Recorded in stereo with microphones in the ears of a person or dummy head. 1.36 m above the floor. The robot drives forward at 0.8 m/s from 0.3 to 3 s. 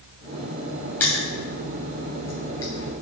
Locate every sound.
1.0 s crushing: 10° left (ahead or behind), 2.5 m; by 3.0 s 20° left (ahead or behind), 1.2 m